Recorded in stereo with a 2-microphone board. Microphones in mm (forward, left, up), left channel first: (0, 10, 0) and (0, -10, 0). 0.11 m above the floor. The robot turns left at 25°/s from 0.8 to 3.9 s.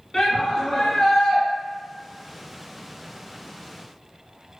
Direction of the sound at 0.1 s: 15° left (ahead or behind).